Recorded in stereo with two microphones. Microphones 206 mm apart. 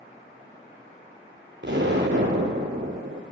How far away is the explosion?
About 0.8 m.